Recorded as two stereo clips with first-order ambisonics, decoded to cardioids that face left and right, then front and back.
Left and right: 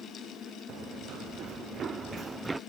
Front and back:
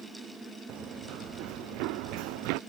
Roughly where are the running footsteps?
Behind right.